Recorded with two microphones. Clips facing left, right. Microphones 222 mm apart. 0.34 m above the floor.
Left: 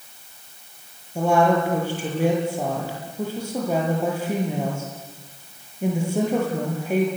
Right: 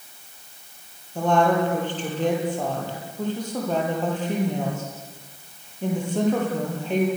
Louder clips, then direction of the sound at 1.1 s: Left 1 dB; 10° left (ahead or behind).